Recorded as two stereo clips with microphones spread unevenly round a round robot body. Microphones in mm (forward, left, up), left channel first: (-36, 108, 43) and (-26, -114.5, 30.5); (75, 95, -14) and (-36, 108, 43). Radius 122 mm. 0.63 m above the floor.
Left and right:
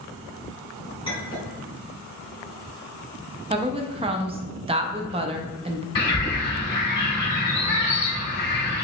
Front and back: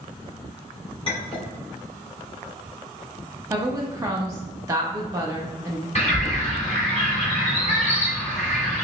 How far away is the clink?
About 1.8 m.